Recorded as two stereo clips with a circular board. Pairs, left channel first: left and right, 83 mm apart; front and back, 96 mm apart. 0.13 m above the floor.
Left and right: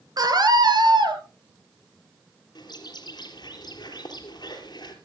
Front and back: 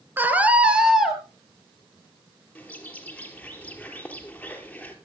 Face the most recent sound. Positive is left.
turn(degrees=75)